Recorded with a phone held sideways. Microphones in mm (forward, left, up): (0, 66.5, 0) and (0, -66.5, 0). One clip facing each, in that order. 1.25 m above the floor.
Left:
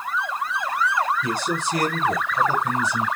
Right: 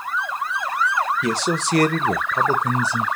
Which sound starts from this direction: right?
A man speaking, at 1.2 s.